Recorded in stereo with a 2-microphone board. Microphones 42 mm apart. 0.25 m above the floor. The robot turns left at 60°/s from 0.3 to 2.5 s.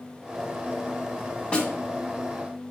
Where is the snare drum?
20° left (ahead or behind), 2 m; by 1.7 s 15° left (ahead or behind), 2 m.